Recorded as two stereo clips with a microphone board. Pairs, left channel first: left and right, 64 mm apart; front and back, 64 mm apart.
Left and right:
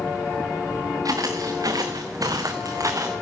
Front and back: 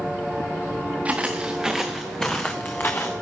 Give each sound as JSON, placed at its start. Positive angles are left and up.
{"t": 1.1, "sound": "footsteps", "azimuth_deg": -110, "distance_m": 1.7}